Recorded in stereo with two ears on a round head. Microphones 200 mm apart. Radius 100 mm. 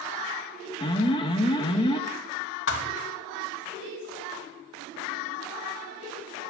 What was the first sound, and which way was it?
An alarm, 20° left (ahead or behind).